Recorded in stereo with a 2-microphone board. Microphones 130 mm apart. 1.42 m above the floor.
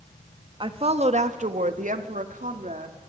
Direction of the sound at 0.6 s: 40° right (ahead or behind).